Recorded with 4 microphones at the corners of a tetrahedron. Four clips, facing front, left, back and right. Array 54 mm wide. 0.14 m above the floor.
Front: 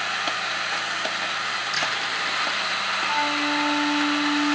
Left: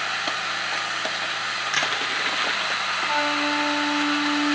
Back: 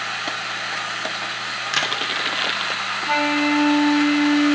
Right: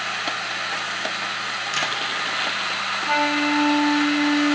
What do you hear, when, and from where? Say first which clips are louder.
1.7 s crushing: left 1 dB, back 6 dB; 165° left, 0.8 m
3.1 s a flute: right 4 dB, back 7 dB; 150° right, 0.6 m